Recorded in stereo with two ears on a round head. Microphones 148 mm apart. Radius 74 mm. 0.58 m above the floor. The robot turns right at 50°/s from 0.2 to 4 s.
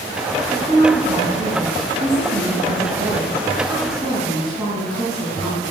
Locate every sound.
0.5 s a woman speaking: 175° right, 3.5 m; by 5.7 s straight ahead, 3.5 m